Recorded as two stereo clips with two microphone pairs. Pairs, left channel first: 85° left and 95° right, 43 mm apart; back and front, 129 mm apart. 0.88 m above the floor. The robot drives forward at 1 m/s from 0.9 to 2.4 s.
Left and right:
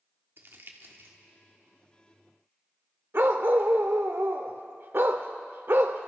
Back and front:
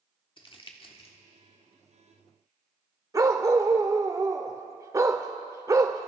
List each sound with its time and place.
0.4 s crumpling: 130° right, 1.3 m; by 1.2 s 135° right, 1.5 m
3.1 s a dog barking: 65° right, 0.8 m